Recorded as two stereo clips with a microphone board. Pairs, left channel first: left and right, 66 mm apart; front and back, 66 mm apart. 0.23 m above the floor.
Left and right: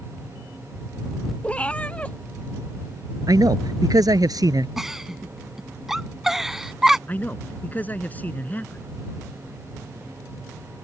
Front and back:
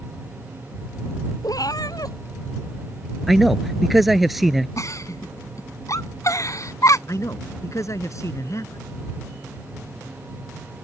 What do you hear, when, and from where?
1.4 s a cat meowing: 20° left
3.3 s a man speaking: 90° right
4.8 s a giggle: 5° right
7.1 s a man speaking: 30° left